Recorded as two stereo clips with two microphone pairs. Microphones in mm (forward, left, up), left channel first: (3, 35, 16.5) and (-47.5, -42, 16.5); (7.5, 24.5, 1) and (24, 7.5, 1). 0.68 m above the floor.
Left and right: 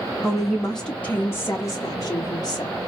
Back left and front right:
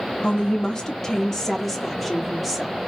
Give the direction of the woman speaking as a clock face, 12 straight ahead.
7 o'clock.